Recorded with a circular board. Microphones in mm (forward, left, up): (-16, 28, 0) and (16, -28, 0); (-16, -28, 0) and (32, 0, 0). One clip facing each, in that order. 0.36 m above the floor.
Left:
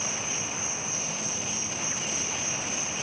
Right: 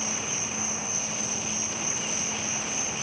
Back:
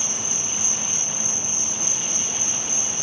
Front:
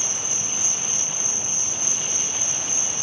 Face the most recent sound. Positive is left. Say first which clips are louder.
# right 1 dB, back 1 dB
turn(degrees=-100)